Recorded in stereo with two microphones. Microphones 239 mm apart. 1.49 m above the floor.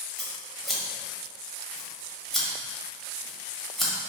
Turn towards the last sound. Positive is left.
turn(degrees=0)  # may be behind; listen again after turning